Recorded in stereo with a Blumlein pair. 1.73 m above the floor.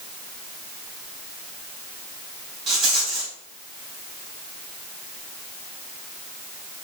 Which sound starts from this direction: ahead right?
A rattle, at 2.7 s.